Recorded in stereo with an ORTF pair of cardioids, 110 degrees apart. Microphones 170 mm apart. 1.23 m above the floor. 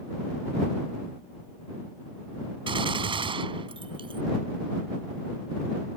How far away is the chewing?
I don't hear chewing.